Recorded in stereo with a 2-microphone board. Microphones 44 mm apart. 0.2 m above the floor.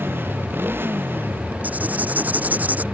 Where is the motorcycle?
55° right (ahead or behind); by 2.9 s 50° right (ahead or behind).